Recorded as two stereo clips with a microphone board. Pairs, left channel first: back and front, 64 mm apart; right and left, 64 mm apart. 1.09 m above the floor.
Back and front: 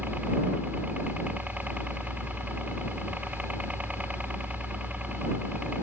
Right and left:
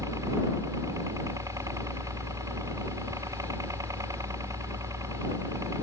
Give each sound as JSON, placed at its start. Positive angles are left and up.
{"t": 0.0, "sound": "a helicopter", "azimuth_deg": 65}